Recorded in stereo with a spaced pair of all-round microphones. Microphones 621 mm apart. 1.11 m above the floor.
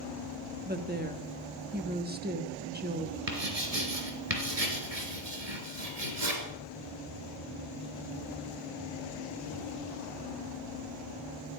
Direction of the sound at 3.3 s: 75° right (ahead or behind).